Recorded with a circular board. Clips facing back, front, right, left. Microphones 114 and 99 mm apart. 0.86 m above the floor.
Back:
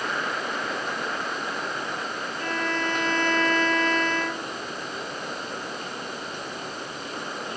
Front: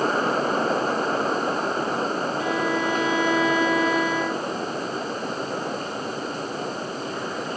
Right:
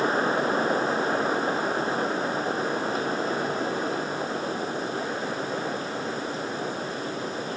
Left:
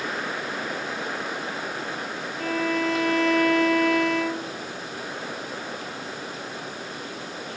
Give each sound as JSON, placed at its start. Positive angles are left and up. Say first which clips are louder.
{"t": 2.4, "sound": "a violin", "louder": "front 2 dB, left 2 dB", "azimuth_deg": 80}